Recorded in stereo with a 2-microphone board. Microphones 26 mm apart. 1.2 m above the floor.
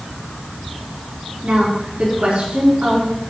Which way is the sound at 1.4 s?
65° right (ahead or behind).